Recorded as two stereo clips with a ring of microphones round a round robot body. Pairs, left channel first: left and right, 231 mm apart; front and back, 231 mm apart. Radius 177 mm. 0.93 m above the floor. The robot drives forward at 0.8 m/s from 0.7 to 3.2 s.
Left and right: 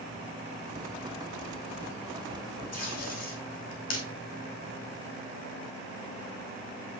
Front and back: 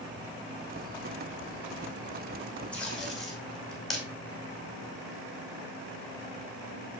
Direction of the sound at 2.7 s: 85° left.